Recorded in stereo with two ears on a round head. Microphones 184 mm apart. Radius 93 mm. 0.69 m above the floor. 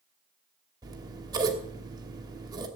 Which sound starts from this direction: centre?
Scissors, at 0.8 s.